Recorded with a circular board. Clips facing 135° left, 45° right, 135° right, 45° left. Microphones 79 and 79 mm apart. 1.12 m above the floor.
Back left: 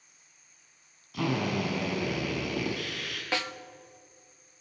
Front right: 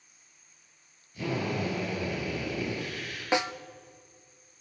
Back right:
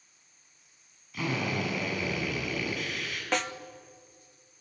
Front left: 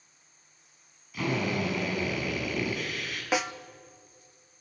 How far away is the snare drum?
About 0.5 m.